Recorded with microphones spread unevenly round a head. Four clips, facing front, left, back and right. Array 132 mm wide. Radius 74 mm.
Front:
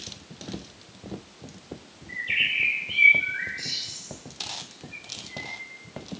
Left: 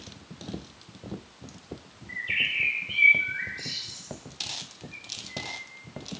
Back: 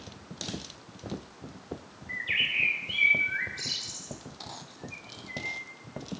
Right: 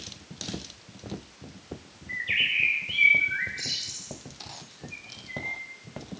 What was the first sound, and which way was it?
A bird, 175° right.